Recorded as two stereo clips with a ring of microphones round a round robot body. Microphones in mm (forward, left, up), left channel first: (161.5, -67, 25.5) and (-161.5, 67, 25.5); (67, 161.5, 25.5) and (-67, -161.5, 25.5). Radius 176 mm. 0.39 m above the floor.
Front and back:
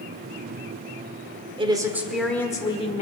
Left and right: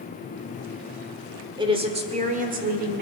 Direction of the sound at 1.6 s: 160° right.